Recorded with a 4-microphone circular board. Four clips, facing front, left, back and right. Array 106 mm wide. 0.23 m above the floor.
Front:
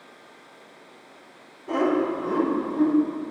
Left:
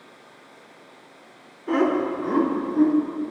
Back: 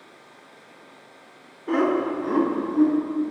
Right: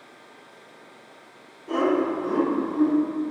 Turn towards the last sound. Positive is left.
turn(degrees=135)